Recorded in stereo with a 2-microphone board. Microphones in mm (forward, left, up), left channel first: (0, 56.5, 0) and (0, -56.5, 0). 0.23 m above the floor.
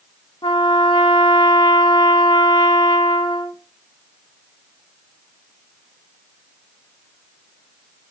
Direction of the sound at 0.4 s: 45° left (ahead or behind).